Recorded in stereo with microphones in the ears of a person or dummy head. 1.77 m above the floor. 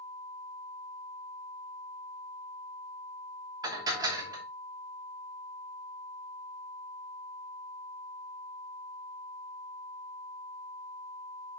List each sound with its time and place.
3.6 s dishes clattering: 25° right (ahead or behind), 3 m